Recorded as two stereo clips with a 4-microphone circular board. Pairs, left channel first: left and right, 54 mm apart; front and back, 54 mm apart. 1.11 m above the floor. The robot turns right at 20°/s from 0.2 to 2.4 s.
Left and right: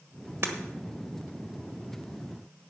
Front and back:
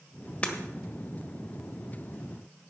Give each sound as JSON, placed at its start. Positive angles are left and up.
{"t": 0.4, "sound": "breaking glass", "azimuth_deg": -60, "distance_m": 1.3}